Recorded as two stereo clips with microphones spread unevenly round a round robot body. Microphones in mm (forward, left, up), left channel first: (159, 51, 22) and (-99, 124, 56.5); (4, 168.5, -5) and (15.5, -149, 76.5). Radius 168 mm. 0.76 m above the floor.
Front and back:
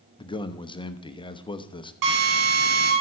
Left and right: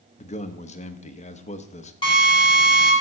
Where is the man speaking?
45° left, 0.9 m.